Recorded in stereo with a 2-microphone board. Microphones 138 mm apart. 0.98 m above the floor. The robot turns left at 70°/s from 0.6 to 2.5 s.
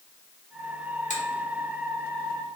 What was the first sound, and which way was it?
A finger snap, 60° left (ahead or behind).